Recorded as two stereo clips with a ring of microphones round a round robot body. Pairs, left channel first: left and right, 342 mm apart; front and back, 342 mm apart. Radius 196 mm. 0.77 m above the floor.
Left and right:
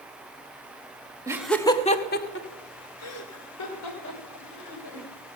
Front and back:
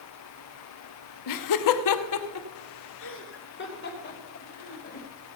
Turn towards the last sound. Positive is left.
turn(degrees=65)